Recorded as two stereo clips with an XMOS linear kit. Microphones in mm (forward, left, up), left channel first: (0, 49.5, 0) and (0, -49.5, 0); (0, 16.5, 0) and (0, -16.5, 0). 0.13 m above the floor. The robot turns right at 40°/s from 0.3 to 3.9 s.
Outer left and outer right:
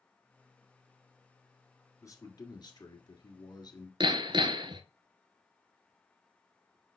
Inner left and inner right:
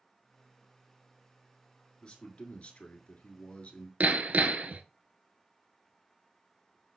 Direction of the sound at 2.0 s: 50° left.